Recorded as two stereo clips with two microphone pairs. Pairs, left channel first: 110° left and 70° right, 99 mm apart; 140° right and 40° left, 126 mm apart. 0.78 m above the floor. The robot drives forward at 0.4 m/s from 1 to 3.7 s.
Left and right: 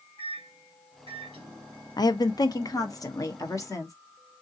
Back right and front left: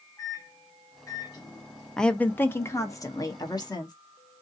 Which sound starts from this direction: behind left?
A woman speaking, at 2.0 s.